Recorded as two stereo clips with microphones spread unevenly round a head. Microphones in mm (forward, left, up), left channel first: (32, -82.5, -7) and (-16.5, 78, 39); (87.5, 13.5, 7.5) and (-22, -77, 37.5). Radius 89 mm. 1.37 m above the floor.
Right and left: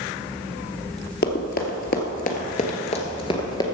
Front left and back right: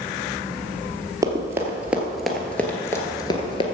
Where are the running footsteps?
100° right, 1.7 m; by 3.6 s 5° left, 1.4 m.